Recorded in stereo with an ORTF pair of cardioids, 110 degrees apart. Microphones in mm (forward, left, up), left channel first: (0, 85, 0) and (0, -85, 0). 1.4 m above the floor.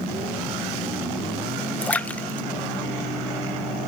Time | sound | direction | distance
1.8 | a splash | 10° left | 0.5 m